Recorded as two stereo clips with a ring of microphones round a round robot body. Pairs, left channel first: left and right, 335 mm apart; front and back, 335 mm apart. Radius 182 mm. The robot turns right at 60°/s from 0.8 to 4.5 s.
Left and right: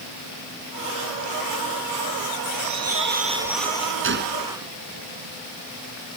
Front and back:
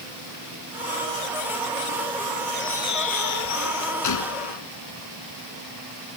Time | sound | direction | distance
2.5 | a bird | 65° right | ?
4.0 | a gunshot | 40° right | ?